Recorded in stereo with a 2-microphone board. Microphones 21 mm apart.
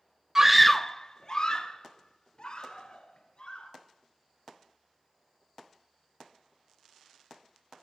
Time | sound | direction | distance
0.3 | a scream | 25° right (ahead or behind) | 0.5 m